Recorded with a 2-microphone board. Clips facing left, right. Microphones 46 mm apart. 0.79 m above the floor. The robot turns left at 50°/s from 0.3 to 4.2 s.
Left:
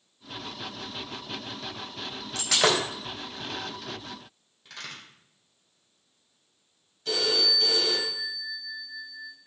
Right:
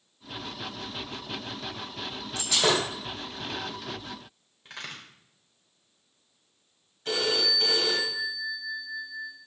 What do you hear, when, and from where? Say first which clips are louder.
2.4 s breaking glass: left 1 dB; 65° left (ahead or behind), 3.5 m; by 2.9 s 85° left, 3.5 m
4.7 s a crack: right 1 dB; 30° right (ahead or behind), 3 m
7.0 s a phone ringing: even; 35° right (ahead or behind), 3 m